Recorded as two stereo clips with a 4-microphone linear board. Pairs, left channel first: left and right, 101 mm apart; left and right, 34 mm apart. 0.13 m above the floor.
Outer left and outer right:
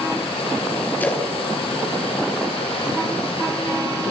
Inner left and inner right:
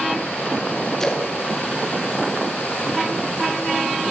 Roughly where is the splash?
Centre.